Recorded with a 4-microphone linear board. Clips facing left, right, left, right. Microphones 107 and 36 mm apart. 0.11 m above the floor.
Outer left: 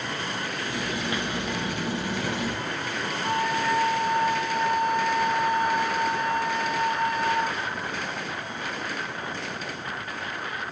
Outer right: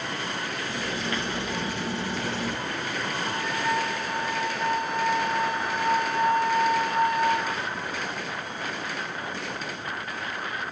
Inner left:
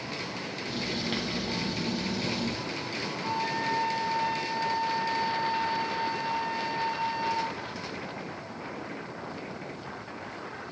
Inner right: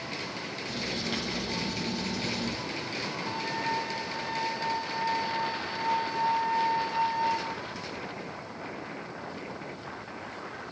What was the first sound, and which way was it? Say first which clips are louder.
Writing: outer left 1 dB, inner left 1 dB; 20° left (ahead or behind).